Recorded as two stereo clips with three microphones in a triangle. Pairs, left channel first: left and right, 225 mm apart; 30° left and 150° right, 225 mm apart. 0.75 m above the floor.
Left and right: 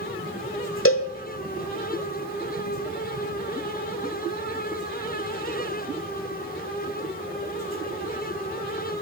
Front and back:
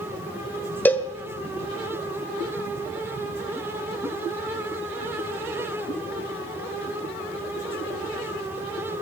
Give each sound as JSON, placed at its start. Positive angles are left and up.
{"t": 0.8, "sound": "a cowbell", "azimuth_deg": 110, "distance_m": 1.0}